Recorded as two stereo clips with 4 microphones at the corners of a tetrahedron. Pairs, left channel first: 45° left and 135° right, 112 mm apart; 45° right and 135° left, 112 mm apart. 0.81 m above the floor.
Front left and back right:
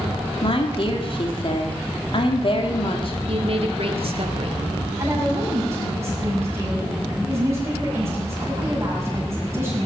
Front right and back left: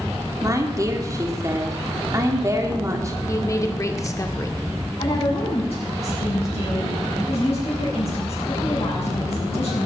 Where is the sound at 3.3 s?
105° right, 1.7 m.